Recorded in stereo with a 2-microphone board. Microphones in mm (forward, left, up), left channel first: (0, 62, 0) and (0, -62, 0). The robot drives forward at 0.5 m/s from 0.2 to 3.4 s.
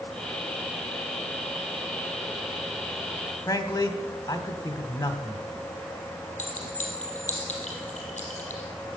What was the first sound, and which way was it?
A man speaking, 25° left (ahead or behind).